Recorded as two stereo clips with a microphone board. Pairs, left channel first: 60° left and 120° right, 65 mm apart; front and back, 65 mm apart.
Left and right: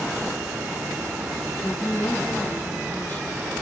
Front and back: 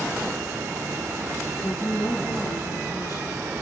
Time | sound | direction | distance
1.6 | a woman speaking | 15° left | 5 m